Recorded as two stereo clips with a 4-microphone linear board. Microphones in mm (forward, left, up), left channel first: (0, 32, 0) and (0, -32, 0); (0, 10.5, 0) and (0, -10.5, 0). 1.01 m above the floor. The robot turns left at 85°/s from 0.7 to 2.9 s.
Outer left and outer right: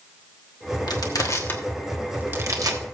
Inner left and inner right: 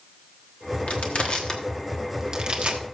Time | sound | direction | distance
0.9 | crushing | 85° left | 1.3 m